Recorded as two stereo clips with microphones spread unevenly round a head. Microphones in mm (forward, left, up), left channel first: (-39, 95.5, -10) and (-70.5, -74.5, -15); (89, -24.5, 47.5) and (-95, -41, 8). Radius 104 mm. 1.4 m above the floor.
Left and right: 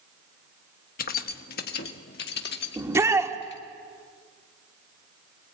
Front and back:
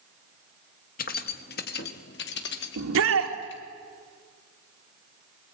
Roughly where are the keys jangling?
Ahead left.